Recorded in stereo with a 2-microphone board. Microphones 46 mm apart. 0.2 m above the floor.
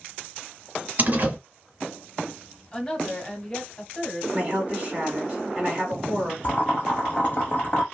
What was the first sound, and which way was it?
A door slam, 40° right (ahead or behind).